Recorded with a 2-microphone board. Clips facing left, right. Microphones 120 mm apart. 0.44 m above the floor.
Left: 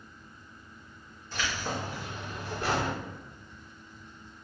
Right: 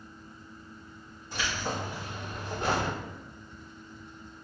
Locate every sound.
1.3 s keys jangling: 15° right (ahead or behind), 1.9 m; by 2.9 s 30° right (ahead or behind), 1.1 m